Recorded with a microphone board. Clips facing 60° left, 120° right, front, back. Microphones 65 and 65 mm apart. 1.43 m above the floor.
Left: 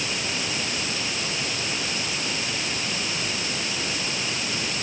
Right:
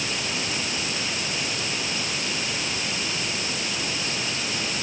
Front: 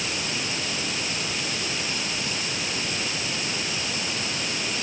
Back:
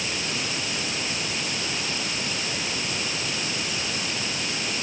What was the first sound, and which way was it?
Only background noise.